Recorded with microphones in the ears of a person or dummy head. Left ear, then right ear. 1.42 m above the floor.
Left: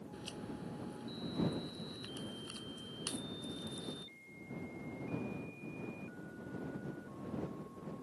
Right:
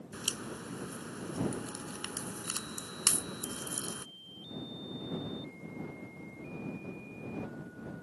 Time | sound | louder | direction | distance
0.1 | a crack | right 10 dB | 40° right (ahead or behind) | ?